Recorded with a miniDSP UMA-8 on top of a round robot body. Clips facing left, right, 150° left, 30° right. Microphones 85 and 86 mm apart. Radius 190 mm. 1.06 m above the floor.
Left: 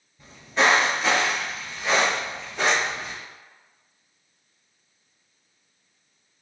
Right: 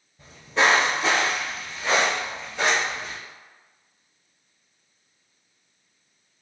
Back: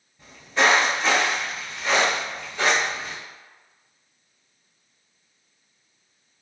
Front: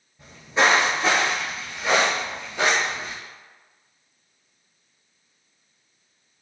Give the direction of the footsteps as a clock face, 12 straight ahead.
4 o'clock.